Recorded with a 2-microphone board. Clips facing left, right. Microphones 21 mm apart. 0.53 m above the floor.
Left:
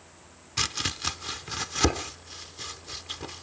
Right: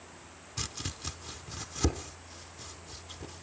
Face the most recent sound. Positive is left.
turn(degrees=45)  # may be behind; listen again after turning